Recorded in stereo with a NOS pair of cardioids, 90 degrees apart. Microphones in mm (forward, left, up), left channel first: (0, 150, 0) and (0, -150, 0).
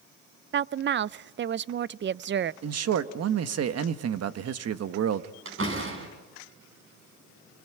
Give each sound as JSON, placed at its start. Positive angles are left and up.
{"t": 0.5, "sound": "a woman speaking", "azimuth_deg": -40, "distance_m": 0.6}
{"t": 2.6, "sound": "a man speaking", "azimuth_deg": -55, "distance_m": 1.4}
{"t": 5.5, "sound": "a door slam", "azimuth_deg": -40, "distance_m": 7.5}